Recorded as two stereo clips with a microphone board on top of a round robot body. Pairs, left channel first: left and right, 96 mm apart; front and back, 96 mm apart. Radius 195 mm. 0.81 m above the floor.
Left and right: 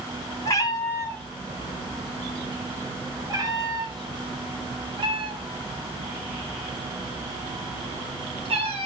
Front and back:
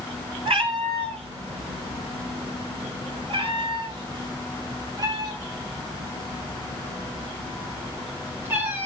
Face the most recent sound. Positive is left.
turn(degrees=-110)